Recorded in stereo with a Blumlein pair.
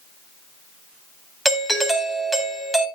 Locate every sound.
1.4 s a doorbell: straight ahead, 2 m